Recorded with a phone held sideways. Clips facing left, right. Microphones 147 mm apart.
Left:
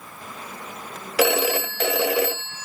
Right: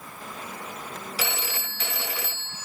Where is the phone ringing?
80° left.